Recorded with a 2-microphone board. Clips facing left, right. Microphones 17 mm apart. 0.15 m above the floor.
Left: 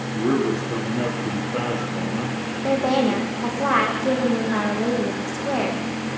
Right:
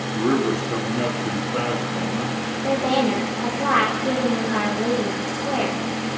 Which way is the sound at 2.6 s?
10° left (ahead or behind).